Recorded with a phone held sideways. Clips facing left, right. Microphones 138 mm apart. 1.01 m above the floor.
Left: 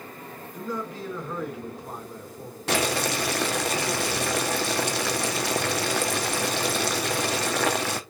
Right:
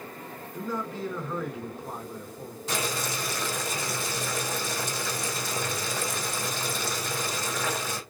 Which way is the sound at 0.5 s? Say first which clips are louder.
Even; 10° left (ahead or behind).